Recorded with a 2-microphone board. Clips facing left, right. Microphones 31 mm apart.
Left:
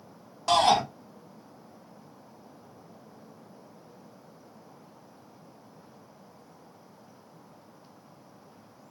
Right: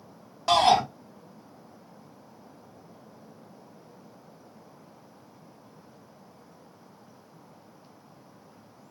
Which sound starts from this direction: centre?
A shout, at 0.5 s.